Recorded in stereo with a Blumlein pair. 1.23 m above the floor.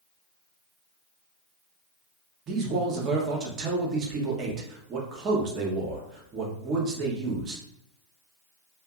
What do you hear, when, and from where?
2.5 s a man speaking: 30° right, 0.8 m